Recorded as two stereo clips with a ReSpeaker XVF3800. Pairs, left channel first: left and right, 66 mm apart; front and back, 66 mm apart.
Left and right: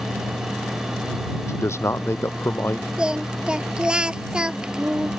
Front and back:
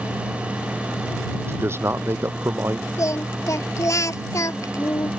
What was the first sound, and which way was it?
A man speaking, 130° left.